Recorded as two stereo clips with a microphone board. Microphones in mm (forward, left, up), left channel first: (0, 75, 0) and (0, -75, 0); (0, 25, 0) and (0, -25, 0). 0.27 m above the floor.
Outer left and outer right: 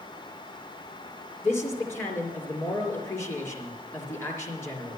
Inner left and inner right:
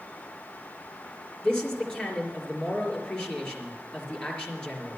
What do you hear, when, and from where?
1.4 s a man speaking: 15° left (ahead or behind), 4.5 m